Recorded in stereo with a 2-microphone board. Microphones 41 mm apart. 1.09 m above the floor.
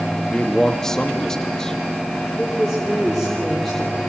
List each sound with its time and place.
0.3 s a man speaking: 15° left (ahead or behind), 1.8 m
2.4 s a woman speaking: 5° left (ahead or behind), 3 m